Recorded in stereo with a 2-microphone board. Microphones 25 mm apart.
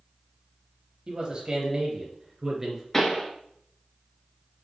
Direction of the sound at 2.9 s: 15° left (ahead or behind).